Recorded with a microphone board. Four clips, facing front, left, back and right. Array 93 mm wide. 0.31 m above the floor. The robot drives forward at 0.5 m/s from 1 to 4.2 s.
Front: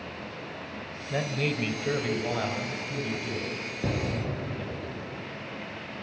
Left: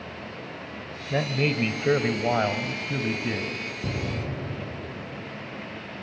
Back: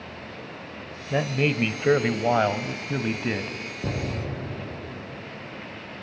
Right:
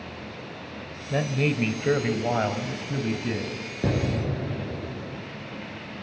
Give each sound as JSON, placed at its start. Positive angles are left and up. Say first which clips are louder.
{"t": 1.1, "sound": "a man speaking", "louder": "even, back 5 dB", "azimuth_deg": 175, "distance_m": 1.0}
{"t": 3.8, "sound": "an explosion", "louder": "right 7 dB, even", "azimuth_deg": -90, "distance_m": 3.0}